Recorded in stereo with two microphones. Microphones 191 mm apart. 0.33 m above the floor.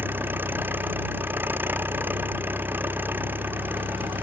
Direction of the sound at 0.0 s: 10° right (ahead or behind).